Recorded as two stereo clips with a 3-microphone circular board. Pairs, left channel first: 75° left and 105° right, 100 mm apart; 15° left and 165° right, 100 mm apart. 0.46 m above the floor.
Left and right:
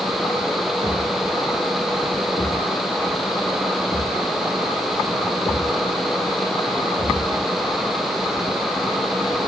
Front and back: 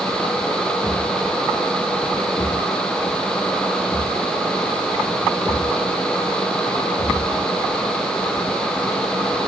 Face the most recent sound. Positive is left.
turn(degrees=-55)